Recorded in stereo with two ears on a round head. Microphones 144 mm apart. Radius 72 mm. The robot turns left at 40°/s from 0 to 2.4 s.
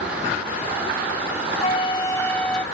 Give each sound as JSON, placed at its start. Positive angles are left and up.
{"t": 1.6, "sound": "a flute", "azimuth_deg": 40}